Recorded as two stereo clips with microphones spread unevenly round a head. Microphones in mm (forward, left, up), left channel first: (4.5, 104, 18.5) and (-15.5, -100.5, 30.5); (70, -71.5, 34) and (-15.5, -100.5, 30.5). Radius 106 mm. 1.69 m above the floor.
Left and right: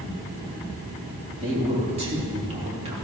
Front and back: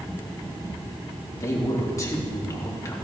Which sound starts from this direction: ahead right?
A man speaking, at 1.4 s.